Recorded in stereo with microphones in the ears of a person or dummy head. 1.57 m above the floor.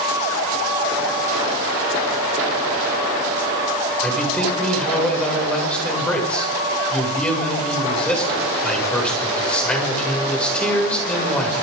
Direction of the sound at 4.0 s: 5° left (ahead or behind).